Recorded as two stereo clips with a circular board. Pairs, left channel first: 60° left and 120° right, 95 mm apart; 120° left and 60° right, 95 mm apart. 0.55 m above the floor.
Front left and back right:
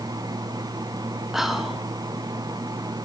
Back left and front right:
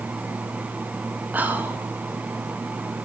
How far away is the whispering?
About 0.6 m.